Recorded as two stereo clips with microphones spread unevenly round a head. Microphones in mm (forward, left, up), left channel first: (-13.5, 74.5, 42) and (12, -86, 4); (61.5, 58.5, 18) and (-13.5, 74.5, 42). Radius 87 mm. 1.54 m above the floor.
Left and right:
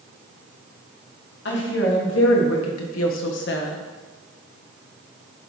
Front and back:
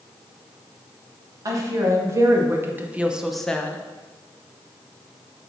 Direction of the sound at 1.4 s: 125° left.